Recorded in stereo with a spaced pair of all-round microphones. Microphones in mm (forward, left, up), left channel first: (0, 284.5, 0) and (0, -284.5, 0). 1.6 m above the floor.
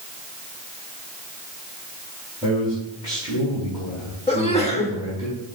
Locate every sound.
2.4 s a man speaking: 5° right (ahead or behind), 4 m
4.3 s a sneeze: 10° left (ahead or behind), 1.5 m